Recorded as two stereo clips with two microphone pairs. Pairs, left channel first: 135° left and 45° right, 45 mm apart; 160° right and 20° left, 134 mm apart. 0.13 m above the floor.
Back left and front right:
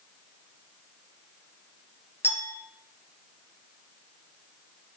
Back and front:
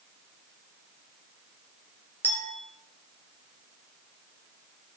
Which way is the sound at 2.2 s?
125° left.